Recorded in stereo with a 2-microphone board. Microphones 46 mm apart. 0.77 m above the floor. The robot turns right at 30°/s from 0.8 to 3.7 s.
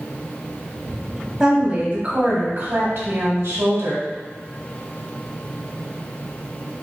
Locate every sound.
1.4 s a woman speaking: 155° right, 1.5 m; by 4.0 s 90° right, 1.5 m